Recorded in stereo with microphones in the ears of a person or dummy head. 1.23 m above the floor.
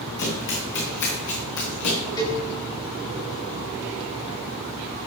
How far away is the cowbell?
About 4.5 m.